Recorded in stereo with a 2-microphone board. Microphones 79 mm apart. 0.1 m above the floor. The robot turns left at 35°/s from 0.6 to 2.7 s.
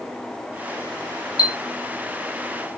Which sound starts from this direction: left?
A chime, at 1.4 s.